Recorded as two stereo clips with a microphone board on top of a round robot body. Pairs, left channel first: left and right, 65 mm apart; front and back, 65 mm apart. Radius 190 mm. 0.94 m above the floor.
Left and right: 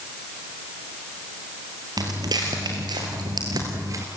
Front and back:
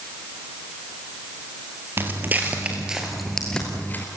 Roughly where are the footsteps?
Behind right.